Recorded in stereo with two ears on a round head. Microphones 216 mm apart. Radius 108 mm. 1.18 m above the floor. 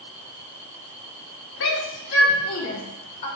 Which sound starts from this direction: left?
A shout, at 1.6 s.